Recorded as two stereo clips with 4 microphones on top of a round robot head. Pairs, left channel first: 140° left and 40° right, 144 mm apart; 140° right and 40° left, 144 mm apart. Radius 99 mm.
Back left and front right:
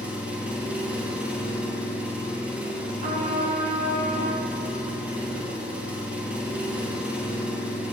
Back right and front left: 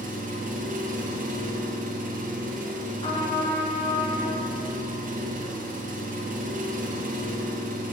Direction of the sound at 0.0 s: 40° left.